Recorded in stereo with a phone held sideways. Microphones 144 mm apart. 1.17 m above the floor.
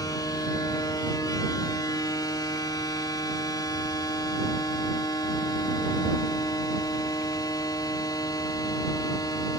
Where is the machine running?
25° left (ahead or behind).